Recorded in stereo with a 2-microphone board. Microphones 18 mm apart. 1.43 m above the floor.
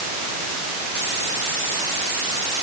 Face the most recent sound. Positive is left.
No sound to turn to.